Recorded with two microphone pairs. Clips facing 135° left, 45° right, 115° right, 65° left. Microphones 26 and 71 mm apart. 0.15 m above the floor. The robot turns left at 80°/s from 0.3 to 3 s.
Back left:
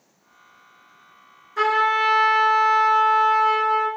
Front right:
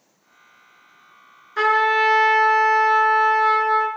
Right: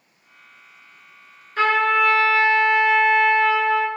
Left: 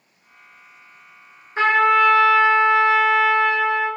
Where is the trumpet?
10° left, 0.7 m; by 3.9 s 105° right, 0.7 m.